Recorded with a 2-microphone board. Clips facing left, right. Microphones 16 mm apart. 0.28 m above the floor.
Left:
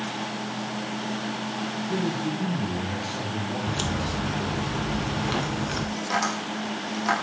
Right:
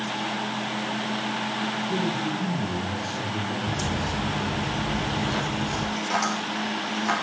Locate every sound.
1.9 s a man speaking: 45° left (ahead or behind), 4.5 m; by 4.7 s 10° left (ahead or behind), 6 m
3.7 s a crack: 70° left (ahead or behind), 3 m
6.0 s tapping: 20° left (ahead or behind), 6.5 m